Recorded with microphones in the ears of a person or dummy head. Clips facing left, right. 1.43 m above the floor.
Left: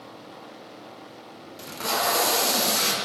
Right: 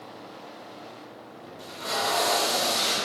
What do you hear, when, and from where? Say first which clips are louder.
1.6 s tape being pulled: left 3 dB; 75° left (ahead or behind), 1.0 m